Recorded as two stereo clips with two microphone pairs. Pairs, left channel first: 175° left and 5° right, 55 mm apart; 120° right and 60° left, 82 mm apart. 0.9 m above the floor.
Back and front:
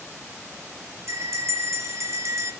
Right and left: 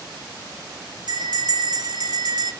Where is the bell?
25° left, 4.5 m.